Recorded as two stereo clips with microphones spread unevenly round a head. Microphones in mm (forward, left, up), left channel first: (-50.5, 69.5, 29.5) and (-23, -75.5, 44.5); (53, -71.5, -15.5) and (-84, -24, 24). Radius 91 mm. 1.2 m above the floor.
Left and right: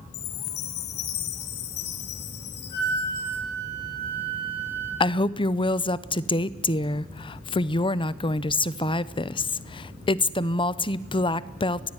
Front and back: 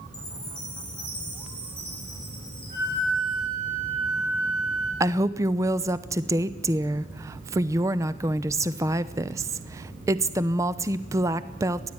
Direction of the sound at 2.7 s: 30° left.